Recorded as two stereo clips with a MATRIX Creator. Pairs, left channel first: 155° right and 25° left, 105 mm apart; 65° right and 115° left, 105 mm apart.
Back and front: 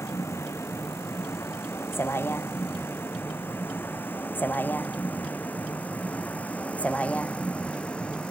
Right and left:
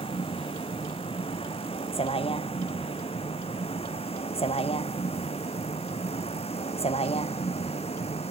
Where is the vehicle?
90° right; by 8.3 s 75° right.